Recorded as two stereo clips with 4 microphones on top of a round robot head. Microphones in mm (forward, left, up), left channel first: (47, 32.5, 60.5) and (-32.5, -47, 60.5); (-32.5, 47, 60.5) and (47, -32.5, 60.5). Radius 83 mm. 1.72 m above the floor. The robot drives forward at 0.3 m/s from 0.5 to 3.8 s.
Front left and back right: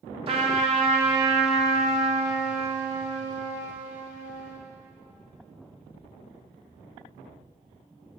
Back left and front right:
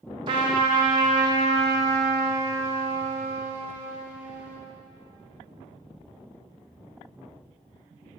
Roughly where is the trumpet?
Right.